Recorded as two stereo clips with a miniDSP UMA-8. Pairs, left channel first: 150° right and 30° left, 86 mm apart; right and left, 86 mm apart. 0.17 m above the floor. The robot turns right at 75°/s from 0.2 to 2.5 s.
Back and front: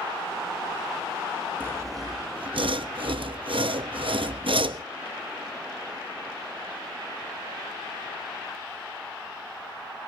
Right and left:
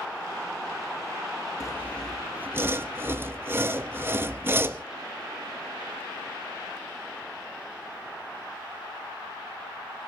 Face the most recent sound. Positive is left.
turn(degrees=25)